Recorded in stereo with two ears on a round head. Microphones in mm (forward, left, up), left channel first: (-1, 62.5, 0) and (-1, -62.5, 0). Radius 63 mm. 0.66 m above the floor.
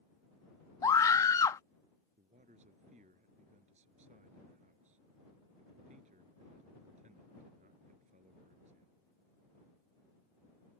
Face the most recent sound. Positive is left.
turn(degrees=-55)  # may be behind; listen again after turning